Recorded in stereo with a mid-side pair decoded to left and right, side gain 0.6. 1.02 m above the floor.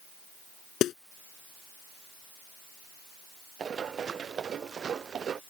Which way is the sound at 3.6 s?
35° right.